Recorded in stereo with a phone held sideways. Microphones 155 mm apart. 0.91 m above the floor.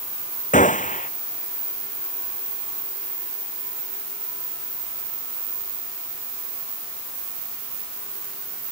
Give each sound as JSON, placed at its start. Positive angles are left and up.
{"t": 0.5, "sound": "a gunshot", "side_deg": 55}